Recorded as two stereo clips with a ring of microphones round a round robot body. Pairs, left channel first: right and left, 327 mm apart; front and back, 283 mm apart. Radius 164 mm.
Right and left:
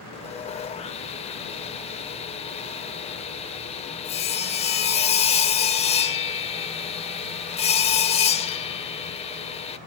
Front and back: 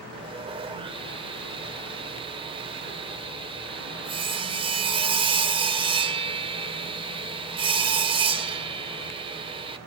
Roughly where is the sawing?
Behind right.